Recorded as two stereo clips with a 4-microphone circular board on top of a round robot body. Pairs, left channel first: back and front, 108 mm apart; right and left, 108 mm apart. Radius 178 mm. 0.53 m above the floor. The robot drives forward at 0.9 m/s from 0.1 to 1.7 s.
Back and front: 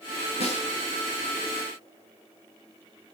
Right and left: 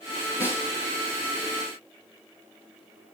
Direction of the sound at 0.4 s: 155° right.